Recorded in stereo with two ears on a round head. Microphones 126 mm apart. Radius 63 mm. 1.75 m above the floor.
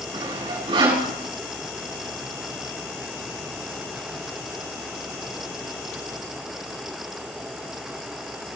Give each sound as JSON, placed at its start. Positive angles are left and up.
{"t": 0.1, "sound": "sawing", "side_deg": -35, "distance_m": 6.5}